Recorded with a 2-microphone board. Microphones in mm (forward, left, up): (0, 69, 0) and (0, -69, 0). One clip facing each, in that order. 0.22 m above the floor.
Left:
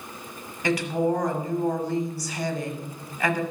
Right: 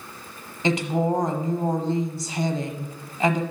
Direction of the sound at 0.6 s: 25° right (ahead or behind).